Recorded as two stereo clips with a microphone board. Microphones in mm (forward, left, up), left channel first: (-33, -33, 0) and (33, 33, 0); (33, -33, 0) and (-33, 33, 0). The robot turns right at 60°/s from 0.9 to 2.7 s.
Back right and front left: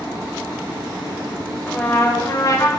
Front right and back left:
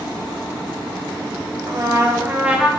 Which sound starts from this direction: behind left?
A trumpet, at 1.7 s.